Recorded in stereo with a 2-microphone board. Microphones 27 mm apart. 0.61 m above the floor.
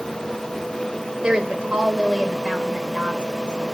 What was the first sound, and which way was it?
A woman speaking, 40° right (ahead or behind).